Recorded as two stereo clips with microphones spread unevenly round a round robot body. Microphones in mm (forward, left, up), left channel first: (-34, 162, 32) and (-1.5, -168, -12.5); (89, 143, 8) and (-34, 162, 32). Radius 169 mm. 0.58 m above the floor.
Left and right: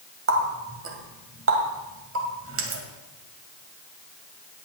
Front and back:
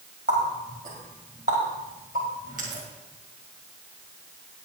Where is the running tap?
135° right, 1.9 m.